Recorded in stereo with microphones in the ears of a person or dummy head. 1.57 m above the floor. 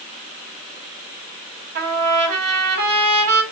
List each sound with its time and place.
1.8 s a trumpet: 55° right (ahead or behind), 1.9 m